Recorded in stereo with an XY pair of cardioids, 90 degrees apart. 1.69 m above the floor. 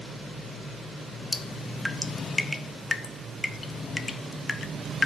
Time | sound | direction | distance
1.3 | dripping | 35° left | 0.7 m